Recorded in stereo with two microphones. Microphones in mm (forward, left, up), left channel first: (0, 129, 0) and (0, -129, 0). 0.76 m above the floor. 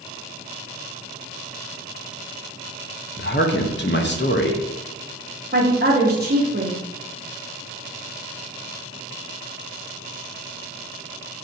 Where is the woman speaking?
40° right (ahead or behind), 0.7 m.